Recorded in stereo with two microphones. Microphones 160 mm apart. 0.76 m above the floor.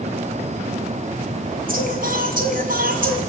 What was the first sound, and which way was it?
Singing, 65° right (ahead or behind).